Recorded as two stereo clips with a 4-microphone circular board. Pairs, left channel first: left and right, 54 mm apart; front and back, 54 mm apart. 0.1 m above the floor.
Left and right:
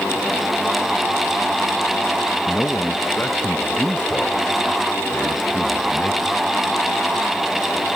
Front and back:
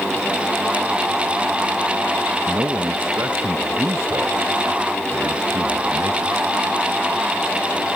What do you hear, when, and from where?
2.5 s a man speaking: 150° left; by 6.5 s 160° left